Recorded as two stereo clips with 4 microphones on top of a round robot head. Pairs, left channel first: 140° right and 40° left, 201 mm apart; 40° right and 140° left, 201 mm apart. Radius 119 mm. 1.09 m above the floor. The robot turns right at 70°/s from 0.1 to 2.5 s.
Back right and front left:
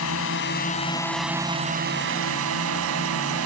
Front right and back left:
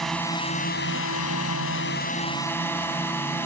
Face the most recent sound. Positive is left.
turn(degrees=40)